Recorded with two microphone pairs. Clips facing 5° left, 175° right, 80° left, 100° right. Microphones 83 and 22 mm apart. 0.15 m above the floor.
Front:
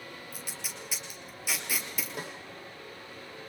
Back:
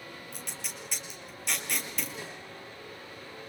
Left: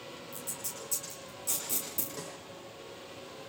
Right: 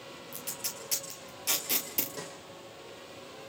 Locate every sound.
0.3 s tape being pulled: 80° right, 4 m
2.2 s a snare drum: 15° right, 7 m